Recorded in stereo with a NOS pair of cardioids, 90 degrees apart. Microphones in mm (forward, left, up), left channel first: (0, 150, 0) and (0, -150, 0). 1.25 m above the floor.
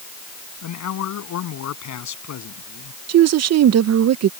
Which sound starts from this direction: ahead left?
A man speaking, at 0.6 s.